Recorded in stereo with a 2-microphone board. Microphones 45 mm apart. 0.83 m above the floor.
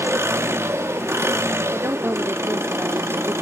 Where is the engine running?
75° right (ahead or behind), 0.9 m.